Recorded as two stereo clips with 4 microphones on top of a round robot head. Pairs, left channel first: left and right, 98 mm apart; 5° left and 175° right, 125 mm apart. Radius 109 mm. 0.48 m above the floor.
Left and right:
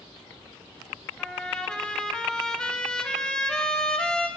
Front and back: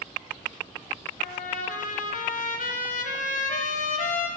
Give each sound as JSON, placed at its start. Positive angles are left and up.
{"t": 1.2, "sound": "a trumpet", "azimuth_deg": 5, "distance_m": 1.5}